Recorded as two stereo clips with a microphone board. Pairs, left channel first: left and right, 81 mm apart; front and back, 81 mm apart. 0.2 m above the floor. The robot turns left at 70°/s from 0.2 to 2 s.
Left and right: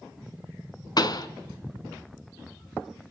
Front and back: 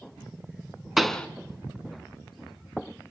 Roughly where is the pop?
Left.